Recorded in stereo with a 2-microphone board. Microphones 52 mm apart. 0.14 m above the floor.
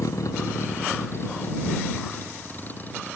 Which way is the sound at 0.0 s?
85° left.